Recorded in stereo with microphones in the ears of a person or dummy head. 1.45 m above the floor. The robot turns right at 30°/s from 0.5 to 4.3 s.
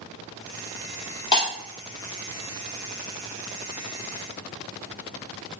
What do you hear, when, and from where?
1.3 s breaking glass: 25° left (ahead or behind), 2.5 m; by 1.5 s 30° left (ahead or behind), 2.5 m